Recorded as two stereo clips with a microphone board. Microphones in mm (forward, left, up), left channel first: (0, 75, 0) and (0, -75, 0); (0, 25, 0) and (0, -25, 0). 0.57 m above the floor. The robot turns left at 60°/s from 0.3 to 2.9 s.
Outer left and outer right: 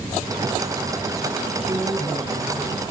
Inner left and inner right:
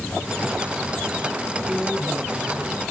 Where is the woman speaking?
5° right, 7.5 m; by 2.7 s 70° right, 7.5 m.